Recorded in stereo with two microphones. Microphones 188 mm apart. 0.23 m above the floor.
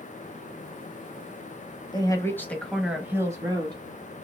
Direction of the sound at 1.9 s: 25° left (ahead or behind).